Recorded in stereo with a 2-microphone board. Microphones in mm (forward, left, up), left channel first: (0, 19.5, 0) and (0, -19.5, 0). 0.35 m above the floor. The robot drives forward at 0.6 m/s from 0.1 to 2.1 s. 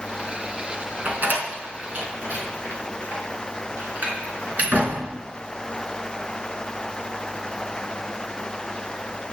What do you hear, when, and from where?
1.1 s a door slam: 55° right (ahead or behind), 3.5 m; by 5.0 s 45° right (ahead or behind), 3.5 m